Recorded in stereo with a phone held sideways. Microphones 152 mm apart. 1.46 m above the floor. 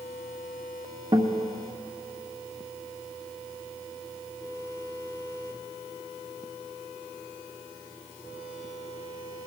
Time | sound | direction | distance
1.1 | a guitar | 35° right (ahead or behind) | 1.2 m